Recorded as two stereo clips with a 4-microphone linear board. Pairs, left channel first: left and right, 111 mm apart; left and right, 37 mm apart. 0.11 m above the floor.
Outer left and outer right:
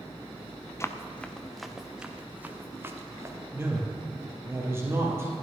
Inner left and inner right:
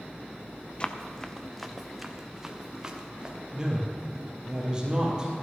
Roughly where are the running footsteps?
Left.